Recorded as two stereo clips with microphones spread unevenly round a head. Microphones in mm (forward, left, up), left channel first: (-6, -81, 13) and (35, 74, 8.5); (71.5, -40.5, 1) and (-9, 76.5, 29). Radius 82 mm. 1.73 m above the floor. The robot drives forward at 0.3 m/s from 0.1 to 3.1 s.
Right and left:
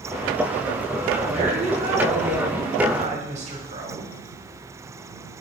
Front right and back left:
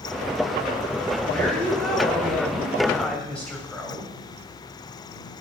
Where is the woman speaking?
25° left, 6.5 m.